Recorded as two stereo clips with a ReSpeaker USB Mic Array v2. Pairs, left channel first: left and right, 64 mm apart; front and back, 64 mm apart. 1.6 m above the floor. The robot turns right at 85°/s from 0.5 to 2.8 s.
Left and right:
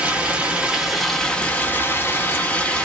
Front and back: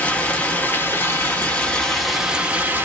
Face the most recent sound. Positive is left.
turn(degrees=150)